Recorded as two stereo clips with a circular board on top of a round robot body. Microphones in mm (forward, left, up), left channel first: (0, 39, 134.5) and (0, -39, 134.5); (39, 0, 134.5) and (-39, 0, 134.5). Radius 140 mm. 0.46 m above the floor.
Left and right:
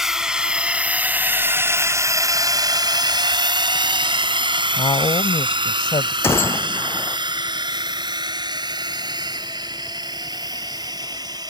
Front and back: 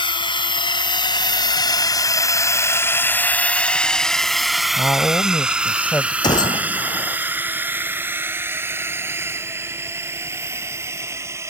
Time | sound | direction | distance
0.0 | a drone | 5° right | ?
4.8 | a woman speaking | 70° left | ?
6.2 | a gunshot | 30° left | ?